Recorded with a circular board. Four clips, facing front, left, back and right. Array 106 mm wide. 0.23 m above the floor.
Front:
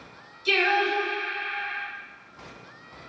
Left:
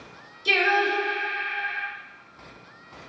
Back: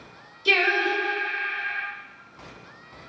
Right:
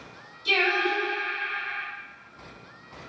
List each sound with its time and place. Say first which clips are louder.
0.5 s singing: left 3 dB, even; 150° left, 0.9 m